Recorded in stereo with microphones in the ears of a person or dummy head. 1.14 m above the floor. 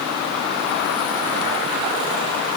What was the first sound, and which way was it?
Only background noise.